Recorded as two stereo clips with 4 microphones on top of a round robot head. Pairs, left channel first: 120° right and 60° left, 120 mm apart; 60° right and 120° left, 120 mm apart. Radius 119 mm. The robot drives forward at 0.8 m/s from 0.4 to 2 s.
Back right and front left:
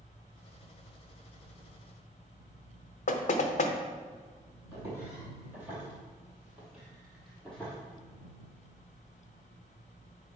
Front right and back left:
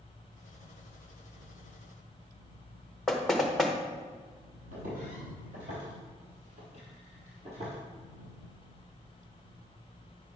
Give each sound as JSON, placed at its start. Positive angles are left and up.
{"t": 3.1, "sound": "knocking", "azimuth_deg": -145, "distance_m": 0.7}
{"t": 4.7, "sound": "footsteps", "azimuth_deg": 120, "distance_m": 3.0}